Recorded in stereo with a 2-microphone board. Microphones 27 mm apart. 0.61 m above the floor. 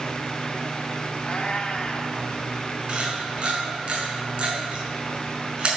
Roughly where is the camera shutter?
Right.